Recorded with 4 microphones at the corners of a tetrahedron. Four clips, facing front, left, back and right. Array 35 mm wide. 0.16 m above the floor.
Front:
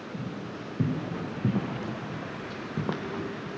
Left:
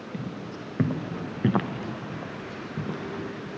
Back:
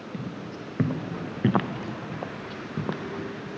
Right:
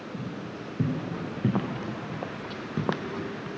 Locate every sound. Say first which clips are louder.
0.1 s footsteps: left 2 dB, back 1 dB; 135° left, 2.5 m; by 3.5 s 80° right, 1.6 m